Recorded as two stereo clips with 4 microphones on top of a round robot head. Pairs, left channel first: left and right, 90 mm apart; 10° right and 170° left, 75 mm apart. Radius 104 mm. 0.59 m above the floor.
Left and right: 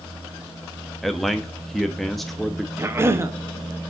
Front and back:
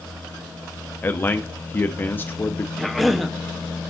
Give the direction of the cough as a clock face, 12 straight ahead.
3 o'clock.